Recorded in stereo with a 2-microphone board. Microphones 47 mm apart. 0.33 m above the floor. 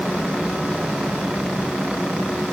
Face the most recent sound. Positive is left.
No sound to turn to.